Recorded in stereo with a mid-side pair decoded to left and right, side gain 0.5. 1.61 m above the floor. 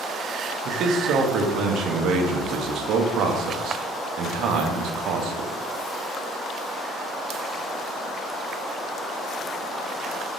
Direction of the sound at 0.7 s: 65° right.